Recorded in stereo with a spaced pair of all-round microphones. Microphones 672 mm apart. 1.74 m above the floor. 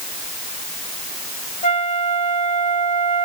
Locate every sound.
1.6 s a flute: 65° left (ahead or behind), 1.7 m